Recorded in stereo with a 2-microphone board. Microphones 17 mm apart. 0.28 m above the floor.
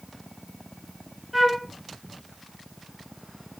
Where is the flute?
10° right (ahead or behind), 1.3 m.